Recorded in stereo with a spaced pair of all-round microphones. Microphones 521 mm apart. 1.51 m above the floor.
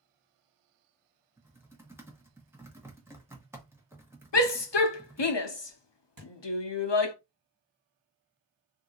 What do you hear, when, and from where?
1.4 s typing on a keyboard: 5° right (ahead or behind), 1.1 m
4.3 s a shout: 55° left (ahead or behind), 0.7 m
6.2 s a thud: 40° right (ahead or behind), 1.9 m